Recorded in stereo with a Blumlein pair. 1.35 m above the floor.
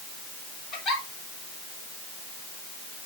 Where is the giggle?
20° left, 3.5 m.